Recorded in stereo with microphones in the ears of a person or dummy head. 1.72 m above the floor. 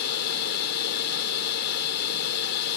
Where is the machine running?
60° left (ahead or behind).